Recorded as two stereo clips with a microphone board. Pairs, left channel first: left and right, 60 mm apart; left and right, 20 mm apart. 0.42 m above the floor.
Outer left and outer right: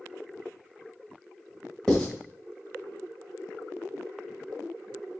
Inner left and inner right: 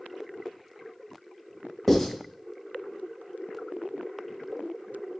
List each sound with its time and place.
1.9 s writing: 10° left (ahead or behind), 1.4 m